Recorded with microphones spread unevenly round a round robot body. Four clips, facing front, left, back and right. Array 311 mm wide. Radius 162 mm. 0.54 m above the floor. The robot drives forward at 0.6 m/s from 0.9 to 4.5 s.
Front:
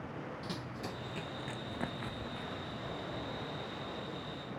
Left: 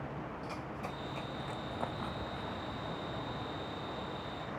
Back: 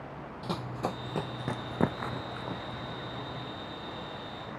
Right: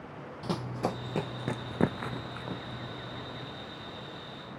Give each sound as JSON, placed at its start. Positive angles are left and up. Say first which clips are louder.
{"t": 0.4, "sound": "running footsteps", "louder": "right 8 dB, back 8 dB", "azimuth_deg": -110}